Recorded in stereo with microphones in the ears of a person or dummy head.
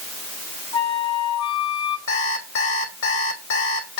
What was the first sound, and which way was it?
A flute, 25° left (ahead or behind).